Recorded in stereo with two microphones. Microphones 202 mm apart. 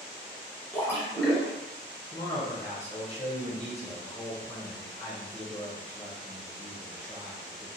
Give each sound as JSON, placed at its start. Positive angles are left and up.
{"t": 0.7, "sound": "a splash", "side_deg": 15, "distance_m": 1.0}
{"t": 2.1, "sound": "a man speaking", "side_deg": 30, "distance_m": 1.1}